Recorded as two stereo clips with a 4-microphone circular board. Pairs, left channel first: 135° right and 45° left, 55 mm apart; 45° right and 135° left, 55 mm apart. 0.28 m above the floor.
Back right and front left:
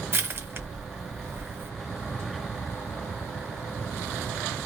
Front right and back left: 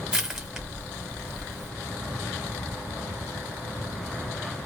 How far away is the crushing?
About 1.5 m.